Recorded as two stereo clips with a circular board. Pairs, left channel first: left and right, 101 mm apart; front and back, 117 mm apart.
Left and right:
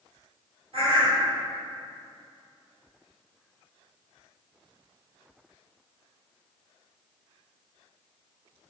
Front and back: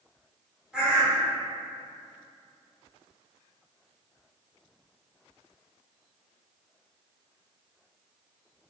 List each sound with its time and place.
0.7 s a bird: 100° right, 0.9 m